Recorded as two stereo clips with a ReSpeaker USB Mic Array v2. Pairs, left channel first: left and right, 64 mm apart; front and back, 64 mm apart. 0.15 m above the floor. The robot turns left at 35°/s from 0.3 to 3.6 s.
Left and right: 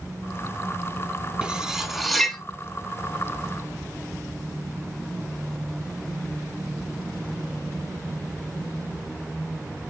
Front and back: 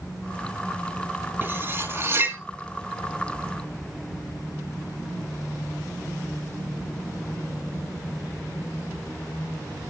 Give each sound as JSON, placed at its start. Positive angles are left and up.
{"t": 1.4, "sound": "cutlery clinking", "azimuth_deg": -155, "distance_m": 1.0}